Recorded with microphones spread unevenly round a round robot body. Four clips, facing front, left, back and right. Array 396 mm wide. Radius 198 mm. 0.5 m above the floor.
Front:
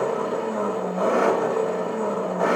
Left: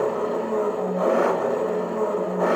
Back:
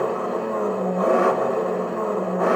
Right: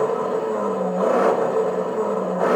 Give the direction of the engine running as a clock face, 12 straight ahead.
3 o'clock.